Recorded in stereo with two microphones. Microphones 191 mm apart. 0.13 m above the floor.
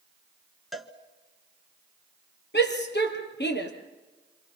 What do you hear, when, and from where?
0.7 s a cowbell: centre (ahead or behind), 1.6 m
2.5 s a shout: 65° left (ahead or behind), 3.5 m